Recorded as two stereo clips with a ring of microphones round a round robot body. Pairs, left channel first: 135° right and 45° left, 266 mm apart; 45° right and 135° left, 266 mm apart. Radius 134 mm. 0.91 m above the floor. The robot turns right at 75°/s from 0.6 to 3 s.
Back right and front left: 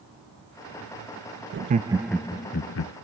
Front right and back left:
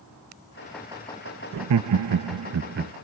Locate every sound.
1.5 s laughter: 95° left, 0.6 m; by 2.9 s 160° right, 0.6 m